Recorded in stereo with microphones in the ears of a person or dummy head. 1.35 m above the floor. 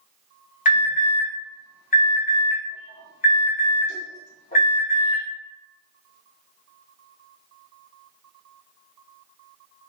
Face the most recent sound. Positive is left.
turn(degrees=40)  # may be behind; listen again after turning